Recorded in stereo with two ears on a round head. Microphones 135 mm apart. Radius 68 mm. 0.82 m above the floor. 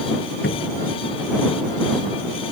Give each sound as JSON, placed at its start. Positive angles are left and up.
{"t": 0.4, "sound": "a cupboard door", "side_deg": 80}